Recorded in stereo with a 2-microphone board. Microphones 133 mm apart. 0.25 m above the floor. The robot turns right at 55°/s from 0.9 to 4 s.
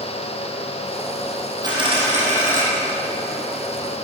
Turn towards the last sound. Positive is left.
turn(degrees=-20)